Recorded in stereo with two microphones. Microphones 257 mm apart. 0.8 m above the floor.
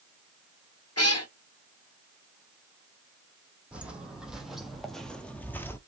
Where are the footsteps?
5° right (ahead or behind), 1.5 m; by 5.8 s 10° left (ahead or behind), 0.8 m.